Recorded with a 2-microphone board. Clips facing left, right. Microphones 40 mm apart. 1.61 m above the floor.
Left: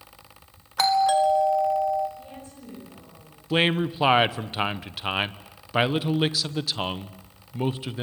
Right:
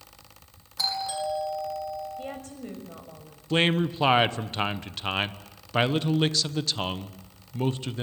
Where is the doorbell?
70° left (ahead or behind), 3 m.